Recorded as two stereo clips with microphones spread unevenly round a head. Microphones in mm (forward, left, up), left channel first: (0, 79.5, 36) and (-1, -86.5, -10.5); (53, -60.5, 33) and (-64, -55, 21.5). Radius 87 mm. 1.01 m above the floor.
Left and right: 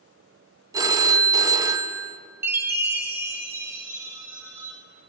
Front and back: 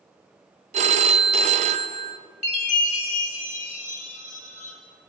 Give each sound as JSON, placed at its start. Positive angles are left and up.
{"t": 0.7, "sound": "a phone ringing", "azimuth_deg": -160, "distance_m": 0.6}
{"t": 2.4, "sound": "a chime", "azimuth_deg": -10, "distance_m": 1.8}